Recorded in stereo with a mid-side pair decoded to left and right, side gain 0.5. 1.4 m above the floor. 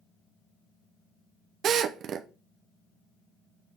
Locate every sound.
1.6 s a drill: 60° right, 0.7 m